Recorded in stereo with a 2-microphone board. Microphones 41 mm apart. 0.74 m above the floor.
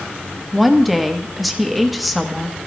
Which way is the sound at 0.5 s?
Centre (ahead or behind).